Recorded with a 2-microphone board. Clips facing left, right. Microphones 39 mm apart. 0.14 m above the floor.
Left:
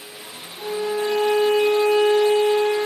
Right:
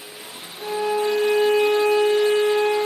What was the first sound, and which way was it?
A violin, 35° right (ahead or behind).